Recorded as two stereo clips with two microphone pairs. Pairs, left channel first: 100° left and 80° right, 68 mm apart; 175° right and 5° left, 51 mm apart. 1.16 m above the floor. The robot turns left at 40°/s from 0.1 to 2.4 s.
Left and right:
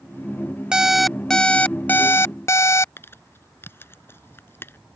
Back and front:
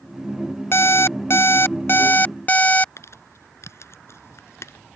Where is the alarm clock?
155° right; by 2.9 s 135° left.